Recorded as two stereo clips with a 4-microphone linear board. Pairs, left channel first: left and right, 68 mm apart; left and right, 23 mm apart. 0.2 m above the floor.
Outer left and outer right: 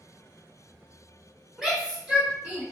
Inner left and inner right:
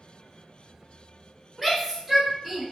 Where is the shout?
10° right (ahead or behind), 1.6 m; by 2.6 s 25° right (ahead or behind), 1.6 m.